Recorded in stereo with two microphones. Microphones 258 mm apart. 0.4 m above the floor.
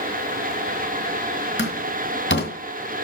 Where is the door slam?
45° left (ahead or behind), 2.5 m.